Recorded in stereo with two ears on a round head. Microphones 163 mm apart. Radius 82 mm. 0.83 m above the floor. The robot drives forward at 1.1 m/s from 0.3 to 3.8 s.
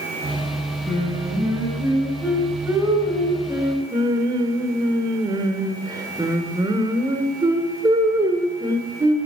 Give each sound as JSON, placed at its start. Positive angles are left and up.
{"t": 0.9, "sound": "singing", "side_deg": -10, "distance_m": 5.0}